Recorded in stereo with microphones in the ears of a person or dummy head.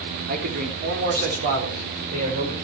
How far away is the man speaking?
About 3 m.